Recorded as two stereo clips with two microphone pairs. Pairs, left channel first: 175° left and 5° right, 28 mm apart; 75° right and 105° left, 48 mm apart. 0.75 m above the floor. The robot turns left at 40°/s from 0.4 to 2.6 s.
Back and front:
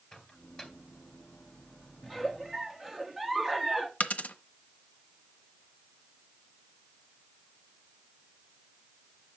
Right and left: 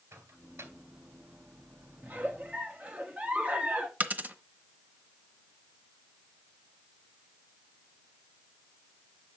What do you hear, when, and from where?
0.1 s a microwave: 115° left, 2 m; by 0.7 s 100° left, 2 m
2.0 s a giggle: 95° left, 1.2 m; by 3.9 s 70° left, 1.2 m
4.0 s a dropped coin: 155° left, 0.9 m